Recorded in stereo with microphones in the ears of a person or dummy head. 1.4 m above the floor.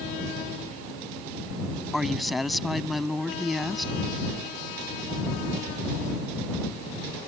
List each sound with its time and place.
1.9 s a woman speaking: 5° right (ahead or behind)